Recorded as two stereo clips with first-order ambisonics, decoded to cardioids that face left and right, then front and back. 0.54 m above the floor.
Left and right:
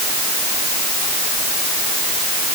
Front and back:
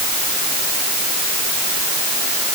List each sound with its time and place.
Only background noise.